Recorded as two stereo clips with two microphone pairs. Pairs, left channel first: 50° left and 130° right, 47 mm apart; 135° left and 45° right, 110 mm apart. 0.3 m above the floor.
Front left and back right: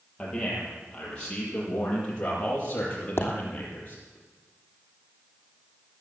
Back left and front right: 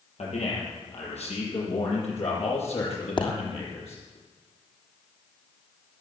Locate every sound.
0.2 s a man speaking: 125° left, 8 m; by 4.2 s 110° left, 7.5 m
3.2 s a pop: 90° left, 3 m